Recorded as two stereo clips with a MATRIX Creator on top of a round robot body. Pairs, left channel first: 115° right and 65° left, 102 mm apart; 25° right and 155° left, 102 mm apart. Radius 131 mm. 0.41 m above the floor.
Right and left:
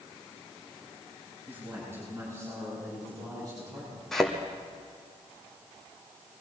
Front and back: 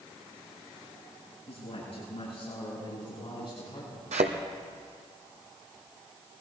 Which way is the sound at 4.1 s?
160° left.